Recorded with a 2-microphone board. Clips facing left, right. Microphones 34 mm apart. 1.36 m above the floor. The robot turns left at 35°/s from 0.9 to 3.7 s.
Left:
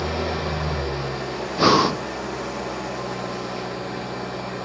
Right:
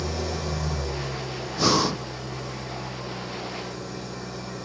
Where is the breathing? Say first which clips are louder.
Left 6 dB; 35° left (ahead or behind), 0.6 m; by 2.1 s 15° left (ahead or behind), 0.6 m.